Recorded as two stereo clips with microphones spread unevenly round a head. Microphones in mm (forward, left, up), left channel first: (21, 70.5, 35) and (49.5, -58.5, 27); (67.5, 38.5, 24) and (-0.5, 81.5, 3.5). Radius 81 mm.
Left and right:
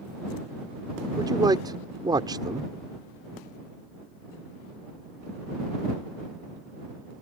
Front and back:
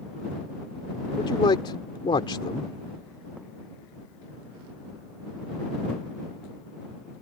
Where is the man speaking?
15° right.